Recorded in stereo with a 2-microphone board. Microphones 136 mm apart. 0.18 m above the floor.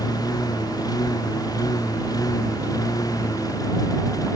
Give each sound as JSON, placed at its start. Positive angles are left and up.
{"t": 0.0, "sound": "a lawn mower", "side_deg": 30}